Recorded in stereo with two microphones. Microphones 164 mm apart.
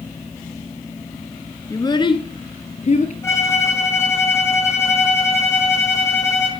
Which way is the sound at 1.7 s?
20° left (ahead or behind).